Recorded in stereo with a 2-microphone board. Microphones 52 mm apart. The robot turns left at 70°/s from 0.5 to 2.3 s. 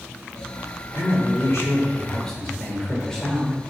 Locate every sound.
0.9 s a man speaking: 110° left, 3 m; by 3.6 s 10° left, 3 m